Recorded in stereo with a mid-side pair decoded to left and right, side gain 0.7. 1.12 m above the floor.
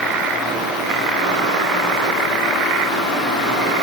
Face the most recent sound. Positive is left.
No sound to turn to.